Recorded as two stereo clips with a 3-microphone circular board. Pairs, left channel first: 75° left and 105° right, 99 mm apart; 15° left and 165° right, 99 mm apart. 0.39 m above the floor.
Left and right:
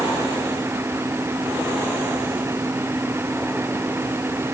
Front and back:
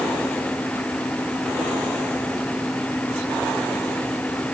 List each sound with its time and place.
Only background noise.